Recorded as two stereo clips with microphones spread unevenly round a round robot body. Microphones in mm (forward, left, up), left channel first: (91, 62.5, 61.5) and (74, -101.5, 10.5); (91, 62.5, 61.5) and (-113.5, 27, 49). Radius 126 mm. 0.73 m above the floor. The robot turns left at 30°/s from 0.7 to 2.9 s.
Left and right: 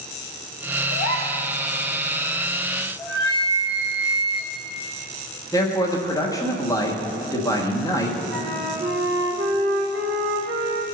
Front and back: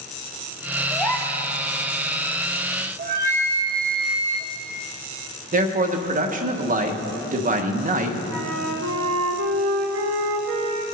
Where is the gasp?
95° left, 1.4 m; by 1.4 s 80° left, 1.4 m.